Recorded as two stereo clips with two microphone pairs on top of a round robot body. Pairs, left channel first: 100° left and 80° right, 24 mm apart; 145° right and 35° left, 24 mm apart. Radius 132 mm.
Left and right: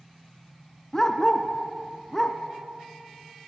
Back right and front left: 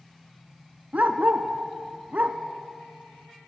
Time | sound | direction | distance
0.9 | a dog barking | 25° left | 1.6 m